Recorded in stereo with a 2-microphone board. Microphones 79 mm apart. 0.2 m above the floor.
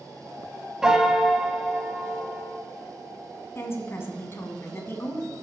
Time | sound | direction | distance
0.8 | a piano | 10° right (ahead or behind) | 0.7 m
3.5 | a woman speaking | 35° left (ahead or behind) | 1.3 m